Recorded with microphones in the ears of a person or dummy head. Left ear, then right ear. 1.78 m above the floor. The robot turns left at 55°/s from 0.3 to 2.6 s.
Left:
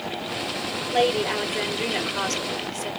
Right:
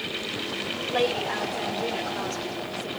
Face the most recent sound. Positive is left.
turn(degrees=80)